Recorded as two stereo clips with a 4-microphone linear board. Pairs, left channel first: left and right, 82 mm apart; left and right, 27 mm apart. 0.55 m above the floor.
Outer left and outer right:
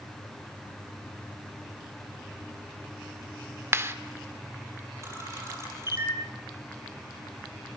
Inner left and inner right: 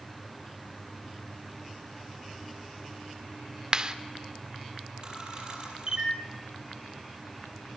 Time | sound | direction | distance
3.7 | a clap | 30° right (ahead or behind) | 1.3 m
5.0 | a camera shutter | 35° right (ahead or behind) | 5 m